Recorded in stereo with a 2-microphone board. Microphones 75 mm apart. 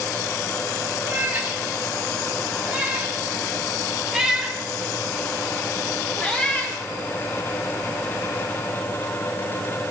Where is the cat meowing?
25° right (ahead or behind), 5.5 m; by 6.8 s 20° left (ahead or behind), 2.5 m.